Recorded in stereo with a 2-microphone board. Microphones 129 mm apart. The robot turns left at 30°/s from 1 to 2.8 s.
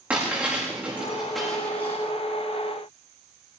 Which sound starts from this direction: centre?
Breaking glass, at 0.1 s.